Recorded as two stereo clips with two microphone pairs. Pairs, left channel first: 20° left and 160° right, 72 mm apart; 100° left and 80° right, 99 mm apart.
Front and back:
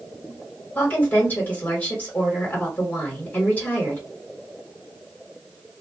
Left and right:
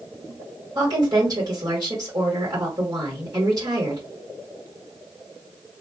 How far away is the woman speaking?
About 1.4 m.